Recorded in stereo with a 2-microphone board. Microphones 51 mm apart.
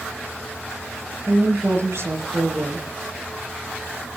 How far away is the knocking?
No knocking in this recording.